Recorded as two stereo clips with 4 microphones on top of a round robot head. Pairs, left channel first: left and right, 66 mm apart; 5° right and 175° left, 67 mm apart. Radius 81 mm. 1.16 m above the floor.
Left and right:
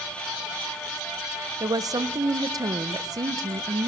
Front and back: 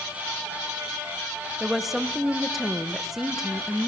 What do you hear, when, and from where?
1.6 s a woman speaking: 100° right, 1.3 m